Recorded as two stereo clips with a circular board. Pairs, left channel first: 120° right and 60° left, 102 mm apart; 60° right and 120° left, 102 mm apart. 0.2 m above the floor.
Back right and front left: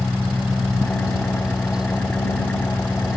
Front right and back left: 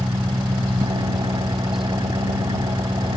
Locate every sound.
0.0 s an engine running: 165° left